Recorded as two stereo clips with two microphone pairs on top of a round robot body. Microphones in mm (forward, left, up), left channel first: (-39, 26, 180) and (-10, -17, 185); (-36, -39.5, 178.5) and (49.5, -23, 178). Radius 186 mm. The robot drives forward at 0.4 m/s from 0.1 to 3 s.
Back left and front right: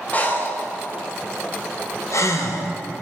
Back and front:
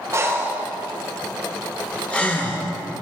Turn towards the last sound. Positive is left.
turn(degrees=130)